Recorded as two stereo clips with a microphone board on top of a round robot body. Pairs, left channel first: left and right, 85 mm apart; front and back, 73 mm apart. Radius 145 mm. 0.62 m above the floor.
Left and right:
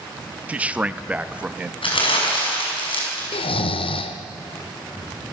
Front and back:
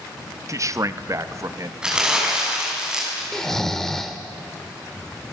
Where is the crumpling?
100° left, 5.5 m.